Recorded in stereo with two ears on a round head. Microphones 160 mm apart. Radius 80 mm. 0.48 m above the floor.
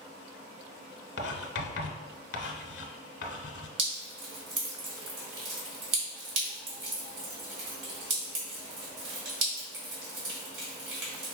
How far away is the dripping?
About 1.9 m.